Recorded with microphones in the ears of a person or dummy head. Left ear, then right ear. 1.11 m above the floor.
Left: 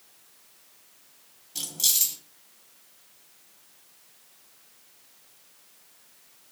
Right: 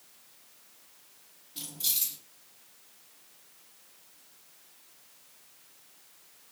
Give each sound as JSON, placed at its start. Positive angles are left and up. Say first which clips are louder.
{"t": 1.6, "sound": "keys jangling", "louder": "left 8 dB", "side_deg": 85, "distance_m": 1.1}